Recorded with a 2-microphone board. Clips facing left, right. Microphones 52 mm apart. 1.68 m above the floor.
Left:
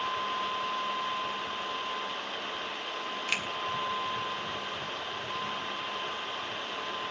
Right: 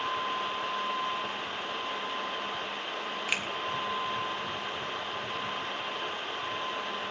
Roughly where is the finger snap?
Centre.